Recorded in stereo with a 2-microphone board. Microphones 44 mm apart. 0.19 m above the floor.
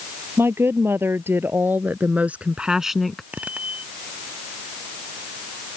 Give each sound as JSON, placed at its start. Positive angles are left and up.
{"t": 0.4, "sound": "a woman speaking", "side_deg": -70}
{"t": 3.3, "sound": "a bicycle bell", "side_deg": -35}